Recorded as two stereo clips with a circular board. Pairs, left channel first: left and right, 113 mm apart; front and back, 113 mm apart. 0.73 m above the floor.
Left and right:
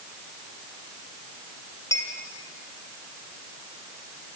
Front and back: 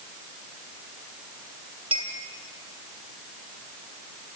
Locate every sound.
1.9 s a clink: 150° left, 3 m